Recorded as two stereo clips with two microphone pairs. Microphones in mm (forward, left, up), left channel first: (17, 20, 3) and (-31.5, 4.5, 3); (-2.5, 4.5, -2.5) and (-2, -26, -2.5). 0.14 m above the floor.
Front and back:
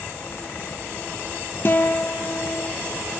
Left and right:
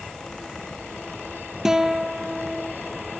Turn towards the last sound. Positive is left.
turn(degrees=-15)